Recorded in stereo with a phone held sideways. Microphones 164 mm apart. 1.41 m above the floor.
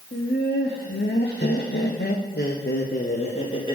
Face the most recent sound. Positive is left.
turn(degrees=25)  # may be behind; listen again after turning